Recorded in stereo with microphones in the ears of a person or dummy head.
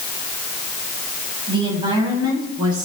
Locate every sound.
1.5 s a woman speaking: 30° right (ahead or behind), 9.5 m; by 2.9 s 25° right (ahead or behind), 10 m